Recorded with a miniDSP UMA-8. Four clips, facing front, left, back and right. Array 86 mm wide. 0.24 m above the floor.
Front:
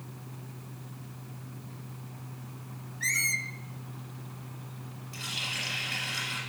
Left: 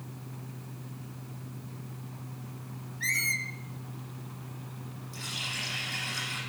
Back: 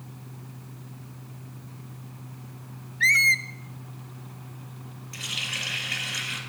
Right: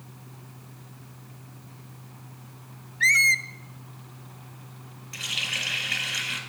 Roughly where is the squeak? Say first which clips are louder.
Right 10 dB, back 10 dB; behind right.